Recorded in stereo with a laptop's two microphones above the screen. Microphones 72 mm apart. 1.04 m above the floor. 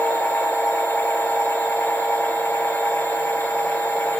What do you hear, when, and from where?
0.0 s a machine running: 35° left (ahead or behind), 1.1 m